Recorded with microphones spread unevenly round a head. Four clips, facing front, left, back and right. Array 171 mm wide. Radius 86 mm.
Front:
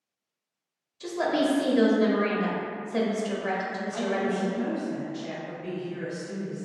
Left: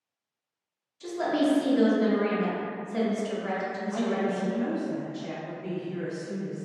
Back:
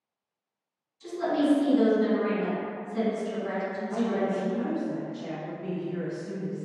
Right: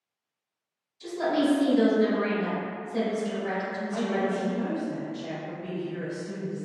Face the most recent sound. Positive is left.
turn(degrees=-175)